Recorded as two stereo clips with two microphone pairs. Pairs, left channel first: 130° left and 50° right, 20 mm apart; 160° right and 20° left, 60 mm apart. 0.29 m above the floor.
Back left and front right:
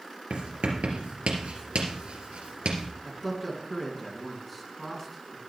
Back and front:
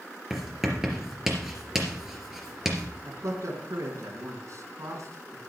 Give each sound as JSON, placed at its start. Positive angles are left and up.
{"t": 0.3, "sound": "writing", "azimuth_deg": -60, "distance_m": 3.0}
{"t": 3.0, "sound": "a man speaking", "azimuth_deg": 35, "distance_m": 3.5}